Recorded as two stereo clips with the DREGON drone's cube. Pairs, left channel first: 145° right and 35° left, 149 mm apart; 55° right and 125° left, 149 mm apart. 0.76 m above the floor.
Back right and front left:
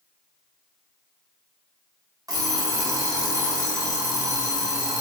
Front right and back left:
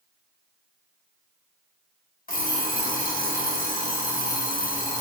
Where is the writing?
No writing in this recording.